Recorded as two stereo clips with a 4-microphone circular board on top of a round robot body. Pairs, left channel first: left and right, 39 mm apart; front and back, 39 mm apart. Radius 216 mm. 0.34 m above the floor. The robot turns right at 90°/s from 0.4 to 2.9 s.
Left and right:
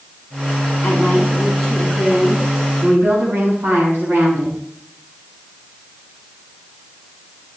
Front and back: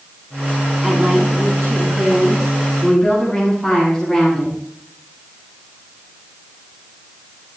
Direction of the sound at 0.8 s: 95° left.